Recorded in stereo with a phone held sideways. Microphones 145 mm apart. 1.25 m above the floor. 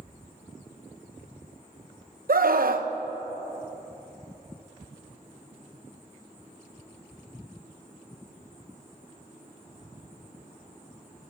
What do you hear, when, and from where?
2.3 s a scream: 80° right, 0.9 m